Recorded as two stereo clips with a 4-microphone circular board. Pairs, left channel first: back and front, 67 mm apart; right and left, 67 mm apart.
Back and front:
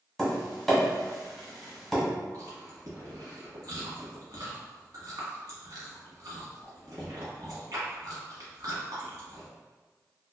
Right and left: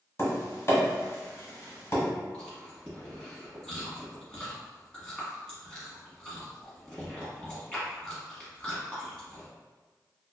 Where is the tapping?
95° right, 1.3 m.